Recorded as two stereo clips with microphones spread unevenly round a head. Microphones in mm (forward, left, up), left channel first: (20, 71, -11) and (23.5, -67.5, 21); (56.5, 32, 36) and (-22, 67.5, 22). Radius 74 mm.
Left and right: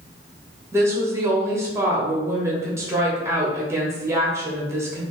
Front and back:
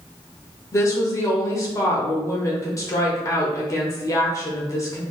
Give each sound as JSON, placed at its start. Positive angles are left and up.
{"t": 0.7, "sound": "a woman speaking", "azimuth_deg": -15, "distance_m": 0.9}